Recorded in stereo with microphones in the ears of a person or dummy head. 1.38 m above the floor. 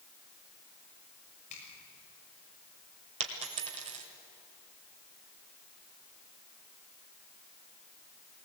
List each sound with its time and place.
1.5 s a finger snap: 40° left (ahead or behind), 7 m
3.2 s a dropped coin: 30° right (ahead or behind), 1.6 m